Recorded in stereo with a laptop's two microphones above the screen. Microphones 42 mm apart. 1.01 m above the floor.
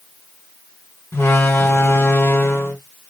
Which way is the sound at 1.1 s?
80° left.